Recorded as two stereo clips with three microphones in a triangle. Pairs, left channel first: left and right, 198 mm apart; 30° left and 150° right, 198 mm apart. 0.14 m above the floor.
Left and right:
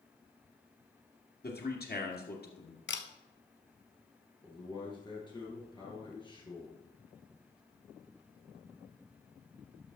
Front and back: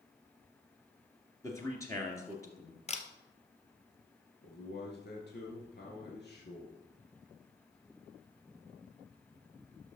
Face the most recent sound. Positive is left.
turn(degrees=30)